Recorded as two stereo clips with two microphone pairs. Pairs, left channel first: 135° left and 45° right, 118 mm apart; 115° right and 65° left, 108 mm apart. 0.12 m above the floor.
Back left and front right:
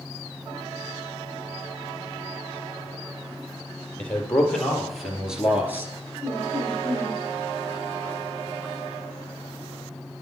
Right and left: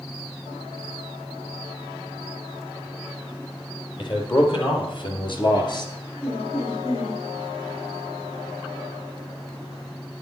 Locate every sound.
4.0 s a man speaking: 145° right, 3 m; by 5.9 s 105° right, 1.9 m
6.2 s laughter: 105° right, 5 m